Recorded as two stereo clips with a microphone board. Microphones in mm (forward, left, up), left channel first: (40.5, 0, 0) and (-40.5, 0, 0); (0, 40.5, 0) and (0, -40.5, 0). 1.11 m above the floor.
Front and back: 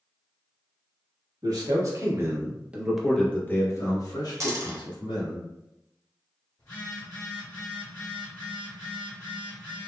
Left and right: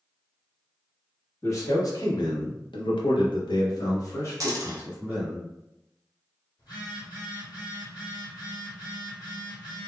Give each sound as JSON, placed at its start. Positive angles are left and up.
{"t": 1.4, "sound": "a man speaking", "azimuth_deg": 140, "distance_m": 1.2}
{"t": 4.4, "sound": "a dropped coin", "azimuth_deg": -135, "distance_m": 0.8}
{"t": 6.6, "sound": "a phone buzzing", "azimuth_deg": 65, "distance_m": 1.8}